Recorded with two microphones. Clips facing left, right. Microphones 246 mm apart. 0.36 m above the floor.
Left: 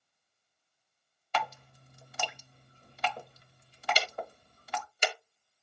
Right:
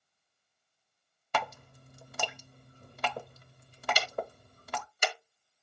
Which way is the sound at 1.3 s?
50° right (ahead or behind).